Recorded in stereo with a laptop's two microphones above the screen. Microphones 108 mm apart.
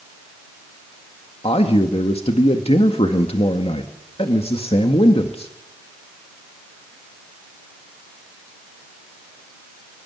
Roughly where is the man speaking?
Left.